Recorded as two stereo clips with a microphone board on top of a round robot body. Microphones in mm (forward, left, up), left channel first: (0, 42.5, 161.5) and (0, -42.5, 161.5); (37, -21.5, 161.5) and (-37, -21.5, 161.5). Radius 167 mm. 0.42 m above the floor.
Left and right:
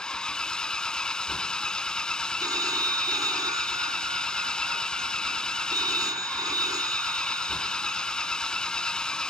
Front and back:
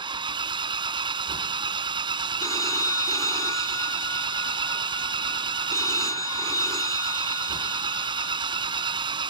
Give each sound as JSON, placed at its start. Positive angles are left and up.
{"t": 0.0, "sound": "an engine running", "azimuth_deg": 170}
{"t": 2.4, "sound": "a phone ringing", "azimuth_deg": -45}